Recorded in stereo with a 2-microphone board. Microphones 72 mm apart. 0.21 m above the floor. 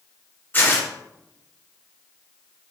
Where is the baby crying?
No baby crying in this recording.